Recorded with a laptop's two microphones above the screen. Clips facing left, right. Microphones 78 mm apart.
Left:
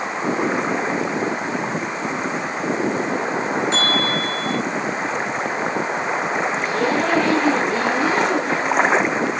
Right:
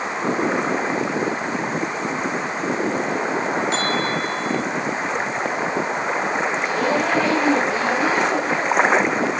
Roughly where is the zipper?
Left.